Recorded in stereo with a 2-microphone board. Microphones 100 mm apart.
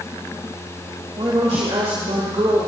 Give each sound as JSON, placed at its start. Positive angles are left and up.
{"t": 1.2, "sound": "a woman speaking", "side_deg": -70, "distance_m": 3.0}